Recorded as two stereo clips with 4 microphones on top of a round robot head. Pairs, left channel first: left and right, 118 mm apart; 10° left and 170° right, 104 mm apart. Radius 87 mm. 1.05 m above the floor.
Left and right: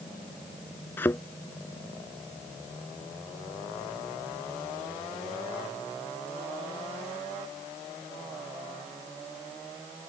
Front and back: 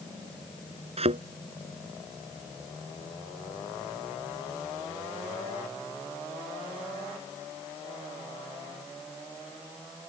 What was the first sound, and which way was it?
A thud, 170° left.